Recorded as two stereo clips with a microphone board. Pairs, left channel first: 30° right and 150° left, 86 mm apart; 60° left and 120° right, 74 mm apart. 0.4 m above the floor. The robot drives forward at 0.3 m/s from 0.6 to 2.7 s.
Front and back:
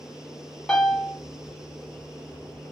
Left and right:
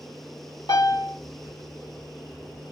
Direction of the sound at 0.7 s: 55° left.